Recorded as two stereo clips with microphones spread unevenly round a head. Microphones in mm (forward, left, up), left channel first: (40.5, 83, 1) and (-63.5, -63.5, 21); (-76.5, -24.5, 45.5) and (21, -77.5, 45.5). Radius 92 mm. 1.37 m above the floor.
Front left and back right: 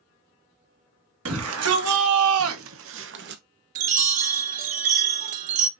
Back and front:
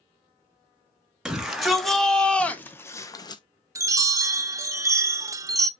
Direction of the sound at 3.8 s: 85° right.